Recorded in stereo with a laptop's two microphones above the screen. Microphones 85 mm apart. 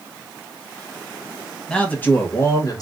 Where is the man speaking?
10° left (ahead or behind), 1.1 m; by 2.8 s 45° left (ahead or behind), 1.1 m.